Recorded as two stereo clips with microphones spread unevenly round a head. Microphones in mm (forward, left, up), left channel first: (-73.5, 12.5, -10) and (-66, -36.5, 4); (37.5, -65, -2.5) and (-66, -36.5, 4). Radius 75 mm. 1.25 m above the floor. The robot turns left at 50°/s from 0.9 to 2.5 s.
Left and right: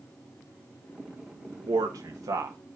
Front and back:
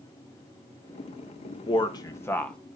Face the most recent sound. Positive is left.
turn(degrees=-95)